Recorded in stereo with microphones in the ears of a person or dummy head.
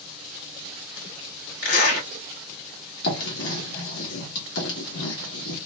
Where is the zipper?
65° left (ahead or behind), 2.5 m.